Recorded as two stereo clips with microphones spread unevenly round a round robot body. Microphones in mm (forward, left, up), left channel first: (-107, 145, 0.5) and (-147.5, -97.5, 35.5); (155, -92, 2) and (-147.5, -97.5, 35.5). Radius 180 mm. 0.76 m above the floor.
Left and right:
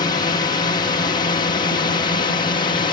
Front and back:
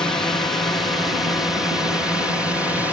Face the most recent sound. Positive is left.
turn(degrees=85)